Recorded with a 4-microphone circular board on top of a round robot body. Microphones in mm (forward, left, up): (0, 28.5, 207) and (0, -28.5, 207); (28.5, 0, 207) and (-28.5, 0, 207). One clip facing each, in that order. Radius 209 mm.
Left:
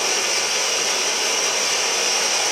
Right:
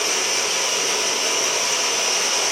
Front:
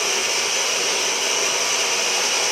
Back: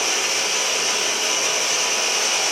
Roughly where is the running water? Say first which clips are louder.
Even, even; left.